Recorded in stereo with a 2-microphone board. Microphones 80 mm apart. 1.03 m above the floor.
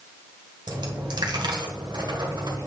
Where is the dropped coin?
65° right (ahead or behind), 1.4 m.